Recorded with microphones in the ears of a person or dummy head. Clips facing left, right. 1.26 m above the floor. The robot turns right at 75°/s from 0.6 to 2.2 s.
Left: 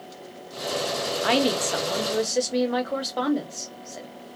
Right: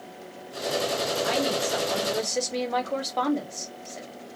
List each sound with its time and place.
1.2 s a woman speaking: 95° left, 0.7 m; by 4.1 s 170° left, 0.7 m